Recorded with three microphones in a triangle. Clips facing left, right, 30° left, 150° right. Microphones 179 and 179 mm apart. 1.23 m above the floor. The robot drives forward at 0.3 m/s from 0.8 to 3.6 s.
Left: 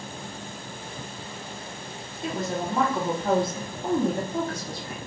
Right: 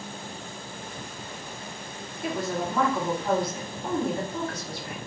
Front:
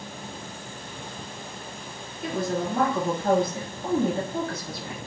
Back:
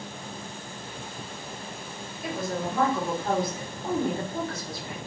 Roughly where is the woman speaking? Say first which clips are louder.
Even, front 3 dB; ahead.